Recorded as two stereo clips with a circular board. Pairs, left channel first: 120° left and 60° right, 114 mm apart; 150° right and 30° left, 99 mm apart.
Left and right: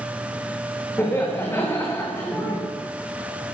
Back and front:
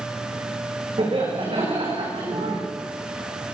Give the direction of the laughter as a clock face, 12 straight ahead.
10 o'clock.